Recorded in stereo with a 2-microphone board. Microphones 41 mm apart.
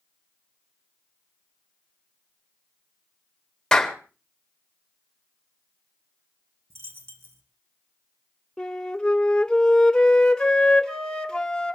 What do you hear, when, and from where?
3.7 s a clap: 15° left (ahead or behind), 2 m
6.7 s a dropped coin: 80° right, 3 m
8.6 s a flute: 20° left (ahead or behind), 1.4 m